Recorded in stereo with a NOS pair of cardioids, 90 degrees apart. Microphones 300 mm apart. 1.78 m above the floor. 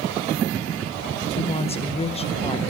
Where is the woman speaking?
20° left, 1.8 m.